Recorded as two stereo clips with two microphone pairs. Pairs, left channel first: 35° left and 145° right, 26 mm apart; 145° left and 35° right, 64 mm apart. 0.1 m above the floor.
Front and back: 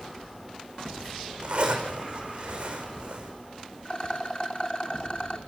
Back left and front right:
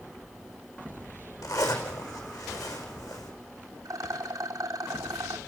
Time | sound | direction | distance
1.4 | a zipper | 165° left | 5 m
3.9 | a rattle | 10° right | 2.5 m